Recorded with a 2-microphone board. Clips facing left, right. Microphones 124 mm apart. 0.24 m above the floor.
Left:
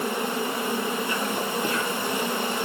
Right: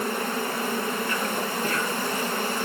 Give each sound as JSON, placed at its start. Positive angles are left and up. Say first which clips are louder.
{"t": 0.0, "sound": "an insect", "louder": "left 1 dB", "side_deg": 20, "distance_m": 5.0}